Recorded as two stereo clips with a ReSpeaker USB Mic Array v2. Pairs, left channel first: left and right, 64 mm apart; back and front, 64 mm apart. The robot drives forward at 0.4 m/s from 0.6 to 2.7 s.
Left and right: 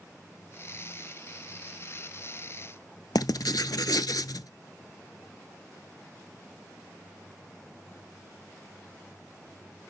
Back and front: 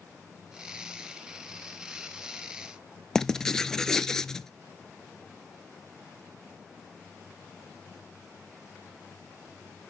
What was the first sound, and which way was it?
Writing, 100° left.